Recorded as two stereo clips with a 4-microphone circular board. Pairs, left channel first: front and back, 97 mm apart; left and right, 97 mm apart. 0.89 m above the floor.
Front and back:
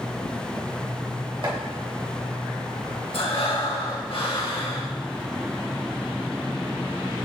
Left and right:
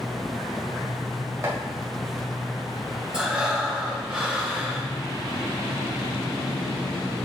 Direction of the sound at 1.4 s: 150° right.